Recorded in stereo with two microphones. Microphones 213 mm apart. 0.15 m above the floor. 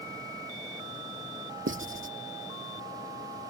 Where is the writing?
60° right (ahead or behind).